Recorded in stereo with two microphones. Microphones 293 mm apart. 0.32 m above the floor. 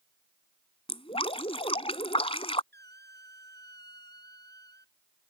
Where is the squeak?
35° right (ahead or behind).